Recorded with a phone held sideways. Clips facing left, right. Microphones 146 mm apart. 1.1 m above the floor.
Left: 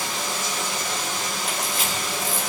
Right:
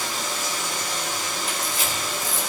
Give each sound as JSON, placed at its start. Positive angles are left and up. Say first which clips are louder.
{"t": 0.0, "sound": "running water", "louder": "left 1 dB", "side_deg": 85, "distance_m": 3.0}
{"t": 1.5, "sound": "a camera shutter", "louder": "left 1 dB", "side_deg": 65, "distance_m": 3.5}